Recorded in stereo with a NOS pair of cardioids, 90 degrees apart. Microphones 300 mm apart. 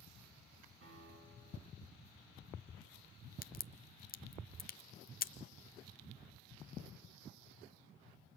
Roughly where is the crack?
Ahead left.